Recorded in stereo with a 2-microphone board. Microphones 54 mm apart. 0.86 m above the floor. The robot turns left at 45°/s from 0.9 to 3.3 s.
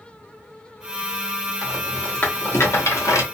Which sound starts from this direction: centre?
A rattle, at 1.6 s.